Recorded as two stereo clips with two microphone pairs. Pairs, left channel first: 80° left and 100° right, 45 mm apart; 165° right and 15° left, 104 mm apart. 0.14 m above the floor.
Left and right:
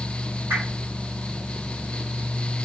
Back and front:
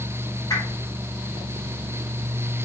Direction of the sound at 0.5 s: 110° right.